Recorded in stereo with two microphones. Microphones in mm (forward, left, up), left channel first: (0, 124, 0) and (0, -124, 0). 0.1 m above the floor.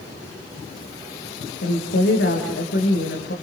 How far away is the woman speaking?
About 6.5 m.